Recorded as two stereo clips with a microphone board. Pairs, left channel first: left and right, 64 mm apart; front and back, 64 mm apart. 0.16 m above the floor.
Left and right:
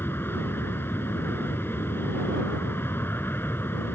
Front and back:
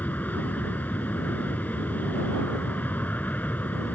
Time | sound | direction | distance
0.0 | an aircraft | 50° left | ?